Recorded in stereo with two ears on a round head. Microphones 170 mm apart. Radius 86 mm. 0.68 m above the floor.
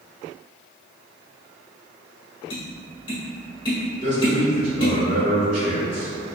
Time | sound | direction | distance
2.5 | tapping | 25° left (ahead or behind) | 1.2 m
4.0 | a man speaking | 40° right (ahead or behind) | 1.7 m